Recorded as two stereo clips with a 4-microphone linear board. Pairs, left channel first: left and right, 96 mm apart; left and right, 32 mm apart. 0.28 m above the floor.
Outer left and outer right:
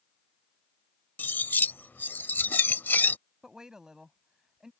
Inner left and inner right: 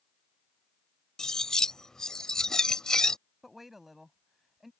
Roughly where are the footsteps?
No footsteps in this recording.